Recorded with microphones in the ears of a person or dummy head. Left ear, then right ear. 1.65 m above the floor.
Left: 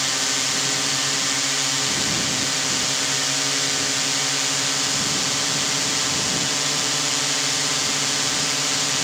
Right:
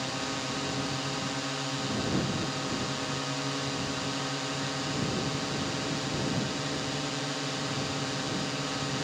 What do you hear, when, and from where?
0.0 s a drone: 60° left (ahead or behind)